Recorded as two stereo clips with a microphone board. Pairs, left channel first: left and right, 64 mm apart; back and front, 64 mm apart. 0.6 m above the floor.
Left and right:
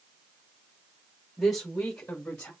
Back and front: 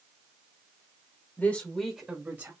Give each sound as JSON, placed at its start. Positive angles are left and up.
{"t": 1.4, "sound": "a woman speaking", "azimuth_deg": 175, "distance_m": 1.2}